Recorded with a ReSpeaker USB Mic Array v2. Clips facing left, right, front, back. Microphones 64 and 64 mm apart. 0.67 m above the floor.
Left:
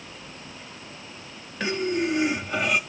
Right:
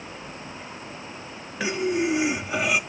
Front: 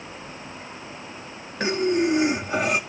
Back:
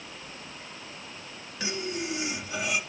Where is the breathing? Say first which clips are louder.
Right 1 dB, front 12 dB; 10° right, 1.0 m.